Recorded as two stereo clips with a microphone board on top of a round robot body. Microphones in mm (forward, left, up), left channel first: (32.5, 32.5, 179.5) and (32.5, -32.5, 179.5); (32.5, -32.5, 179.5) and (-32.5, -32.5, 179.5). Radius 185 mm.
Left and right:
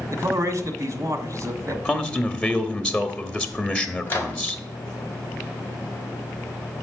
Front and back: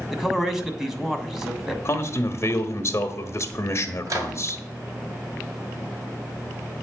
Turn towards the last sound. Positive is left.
turn(degrees=145)